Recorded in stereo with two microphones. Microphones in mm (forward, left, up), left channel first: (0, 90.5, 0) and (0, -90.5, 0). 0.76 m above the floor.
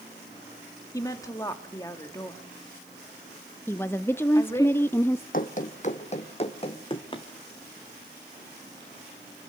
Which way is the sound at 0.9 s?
20° left (ahead or behind).